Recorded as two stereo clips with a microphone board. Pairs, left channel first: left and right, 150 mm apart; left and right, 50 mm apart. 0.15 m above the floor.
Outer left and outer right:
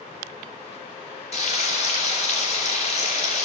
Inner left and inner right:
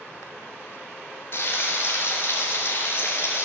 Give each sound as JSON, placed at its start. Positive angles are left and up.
{"t": 1.3, "sound": "frying", "side_deg": 45, "distance_m": 3.0}